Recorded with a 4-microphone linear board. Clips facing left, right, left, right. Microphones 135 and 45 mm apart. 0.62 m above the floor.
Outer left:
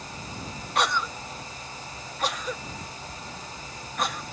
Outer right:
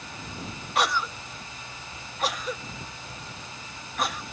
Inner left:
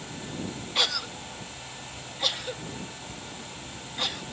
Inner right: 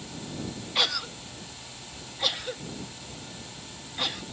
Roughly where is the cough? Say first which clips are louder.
Even, even; centre.